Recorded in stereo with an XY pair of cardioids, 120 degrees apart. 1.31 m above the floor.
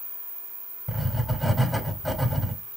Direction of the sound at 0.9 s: 10° left.